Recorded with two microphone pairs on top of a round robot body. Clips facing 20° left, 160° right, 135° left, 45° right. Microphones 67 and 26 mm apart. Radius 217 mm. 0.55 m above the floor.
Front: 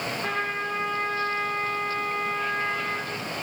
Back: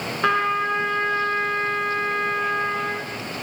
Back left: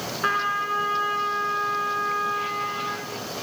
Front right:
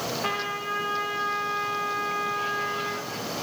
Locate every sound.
0.2 s a trumpet: 175° right, 1.3 m